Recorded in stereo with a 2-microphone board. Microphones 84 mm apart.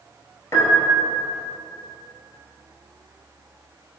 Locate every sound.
0.5 s a piano: 40° left (ahead or behind), 0.8 m